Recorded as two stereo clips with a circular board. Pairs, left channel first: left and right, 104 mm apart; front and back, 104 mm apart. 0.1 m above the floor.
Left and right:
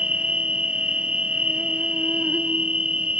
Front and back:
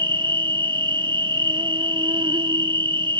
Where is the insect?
165° right, 0.8 m.